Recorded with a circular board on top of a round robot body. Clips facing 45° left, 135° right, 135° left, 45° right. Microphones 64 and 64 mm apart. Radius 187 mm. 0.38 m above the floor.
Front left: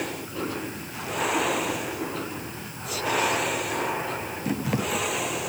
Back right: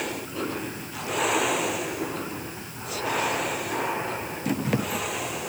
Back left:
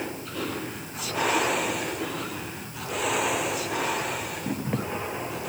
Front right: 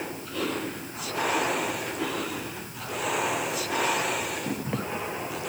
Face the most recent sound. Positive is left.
No sound to turn to.